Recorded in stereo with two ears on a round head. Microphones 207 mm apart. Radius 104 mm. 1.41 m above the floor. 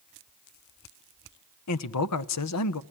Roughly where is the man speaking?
Left.